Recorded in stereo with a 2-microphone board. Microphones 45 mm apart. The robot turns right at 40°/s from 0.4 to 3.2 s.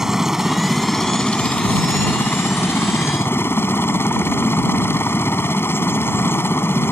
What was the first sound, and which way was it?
A helicopter, 10° right.